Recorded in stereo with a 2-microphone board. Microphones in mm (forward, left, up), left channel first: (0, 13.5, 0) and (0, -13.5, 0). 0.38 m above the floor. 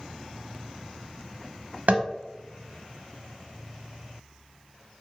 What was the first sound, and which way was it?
Tapping, 85° right.